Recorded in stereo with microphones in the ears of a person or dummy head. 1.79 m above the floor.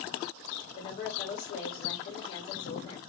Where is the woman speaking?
25° left (ahead or behind), 0.7 m.